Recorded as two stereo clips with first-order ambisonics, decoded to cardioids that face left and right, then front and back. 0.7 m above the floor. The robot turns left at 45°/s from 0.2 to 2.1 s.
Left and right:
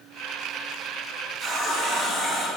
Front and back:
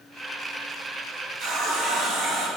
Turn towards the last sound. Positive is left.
turn(degrees=150)